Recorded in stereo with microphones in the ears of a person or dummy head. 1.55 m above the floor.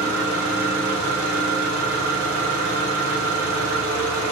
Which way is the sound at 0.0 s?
65° right (ahead or behind).